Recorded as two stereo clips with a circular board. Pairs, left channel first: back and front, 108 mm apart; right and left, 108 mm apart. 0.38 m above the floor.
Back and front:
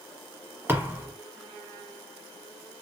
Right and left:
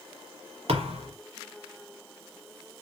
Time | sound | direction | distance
0.7 | a thud | 70° left | 1.2 m